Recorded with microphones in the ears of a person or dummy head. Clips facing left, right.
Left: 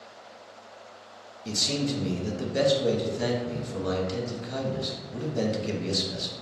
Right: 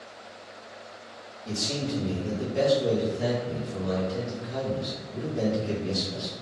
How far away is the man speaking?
About 0.9 m.